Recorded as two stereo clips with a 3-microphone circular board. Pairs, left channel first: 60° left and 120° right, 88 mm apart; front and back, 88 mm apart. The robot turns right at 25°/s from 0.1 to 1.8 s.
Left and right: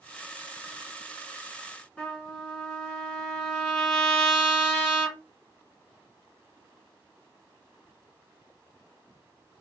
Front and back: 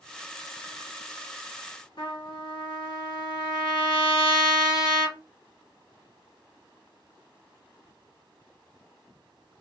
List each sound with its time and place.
2.0 s a trumpet: 10° right, 1.5 m